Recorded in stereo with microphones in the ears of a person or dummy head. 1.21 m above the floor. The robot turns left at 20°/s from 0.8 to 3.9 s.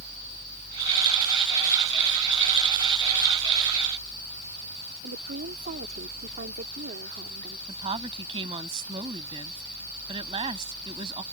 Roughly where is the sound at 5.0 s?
Right.